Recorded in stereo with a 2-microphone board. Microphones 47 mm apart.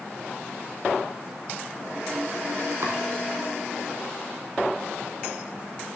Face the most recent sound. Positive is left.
turn(degrees=-70)  # may be behind; listen again after turning